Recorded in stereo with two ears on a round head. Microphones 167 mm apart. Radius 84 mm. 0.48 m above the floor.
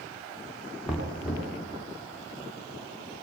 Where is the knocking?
Centre (ahead or behind), 5.5 m.